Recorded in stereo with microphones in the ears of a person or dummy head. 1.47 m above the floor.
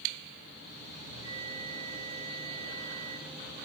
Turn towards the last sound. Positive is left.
turn(degrees=40)  # may be behind; listen again after turning